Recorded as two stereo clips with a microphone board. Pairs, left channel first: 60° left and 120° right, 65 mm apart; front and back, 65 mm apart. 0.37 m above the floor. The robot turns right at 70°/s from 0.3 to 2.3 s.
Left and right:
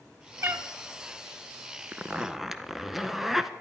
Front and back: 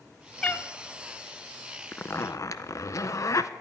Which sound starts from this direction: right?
A cat meowing, at 0.4 s.